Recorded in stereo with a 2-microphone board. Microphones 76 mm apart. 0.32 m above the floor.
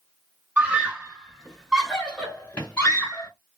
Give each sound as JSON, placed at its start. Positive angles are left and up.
{"t": 0.6, "sound": "a scream", "side_deg": -20, "distance_m": 1.2}